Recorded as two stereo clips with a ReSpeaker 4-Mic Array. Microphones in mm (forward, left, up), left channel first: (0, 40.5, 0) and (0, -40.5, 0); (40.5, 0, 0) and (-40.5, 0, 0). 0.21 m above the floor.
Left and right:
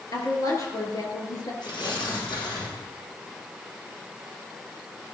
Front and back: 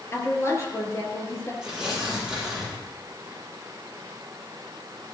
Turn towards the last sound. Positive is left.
turn(degrees=95)